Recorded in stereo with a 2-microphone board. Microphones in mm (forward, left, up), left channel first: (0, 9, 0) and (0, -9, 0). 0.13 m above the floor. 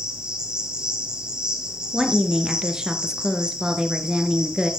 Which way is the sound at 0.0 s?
45° right (ahead or behind).